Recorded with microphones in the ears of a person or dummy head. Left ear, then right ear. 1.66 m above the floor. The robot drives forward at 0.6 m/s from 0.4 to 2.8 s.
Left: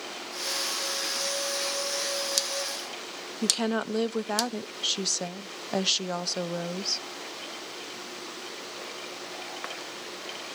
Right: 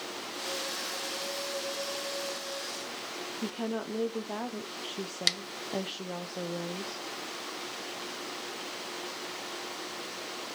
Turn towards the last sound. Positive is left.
turn(degrees=65)  # may be behind; listen again after turning